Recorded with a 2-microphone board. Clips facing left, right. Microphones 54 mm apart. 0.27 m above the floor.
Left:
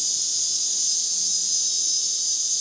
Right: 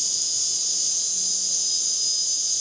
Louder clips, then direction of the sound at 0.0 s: Even; 25° right (ahead or behind).